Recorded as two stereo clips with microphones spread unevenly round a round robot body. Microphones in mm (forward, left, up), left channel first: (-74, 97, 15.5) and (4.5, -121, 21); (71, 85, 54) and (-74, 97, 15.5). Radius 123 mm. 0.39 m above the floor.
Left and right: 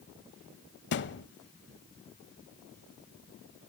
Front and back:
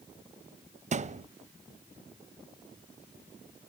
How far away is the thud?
About 1.0 m.